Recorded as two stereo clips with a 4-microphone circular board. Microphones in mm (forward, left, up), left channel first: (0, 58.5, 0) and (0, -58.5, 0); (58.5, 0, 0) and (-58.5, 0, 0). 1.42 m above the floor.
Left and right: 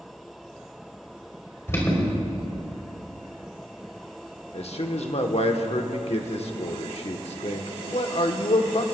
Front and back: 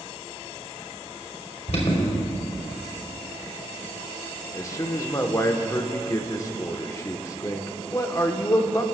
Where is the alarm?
25° left, 3.5 m.